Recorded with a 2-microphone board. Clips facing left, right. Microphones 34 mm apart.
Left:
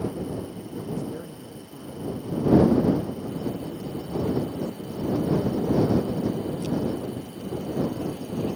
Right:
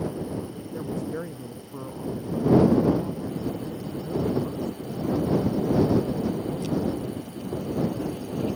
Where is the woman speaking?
45° right (ahead or behind).